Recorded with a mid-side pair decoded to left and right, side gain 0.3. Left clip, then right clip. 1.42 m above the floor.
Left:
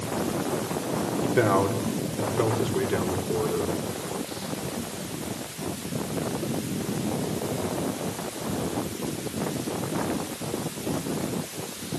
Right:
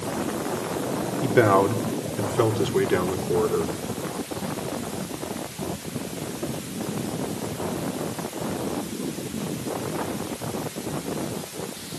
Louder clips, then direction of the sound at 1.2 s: Right 5 dB; 50° right.